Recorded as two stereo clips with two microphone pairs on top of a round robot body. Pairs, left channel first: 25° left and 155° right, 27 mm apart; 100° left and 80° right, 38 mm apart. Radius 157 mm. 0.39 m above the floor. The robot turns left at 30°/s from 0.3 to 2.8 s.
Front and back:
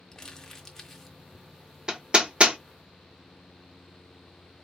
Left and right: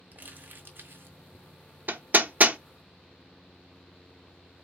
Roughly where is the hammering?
Right.